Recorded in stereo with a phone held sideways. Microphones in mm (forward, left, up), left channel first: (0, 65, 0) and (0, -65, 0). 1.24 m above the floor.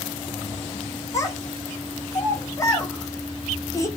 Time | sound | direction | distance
1.1 | a child speaking | 20° left (ahead or behind) | 0.5 m